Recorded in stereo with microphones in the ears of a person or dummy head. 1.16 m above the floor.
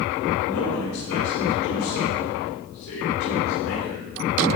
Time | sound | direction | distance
0.4 | a man speaking | 75° left (ahead or behind) | 4.5 m